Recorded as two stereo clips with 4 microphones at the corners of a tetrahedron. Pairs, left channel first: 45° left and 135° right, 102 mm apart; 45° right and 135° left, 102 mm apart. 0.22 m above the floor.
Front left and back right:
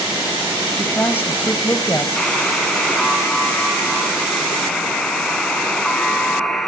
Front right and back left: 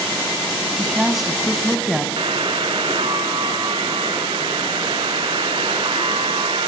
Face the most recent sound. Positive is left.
turn(degrees=125)